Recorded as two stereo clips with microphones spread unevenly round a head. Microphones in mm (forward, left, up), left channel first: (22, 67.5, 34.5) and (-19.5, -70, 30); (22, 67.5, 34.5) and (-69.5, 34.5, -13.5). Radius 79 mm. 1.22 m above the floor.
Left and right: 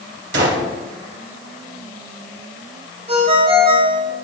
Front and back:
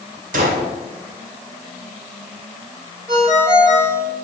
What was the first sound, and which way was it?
A gunshot, 125° right.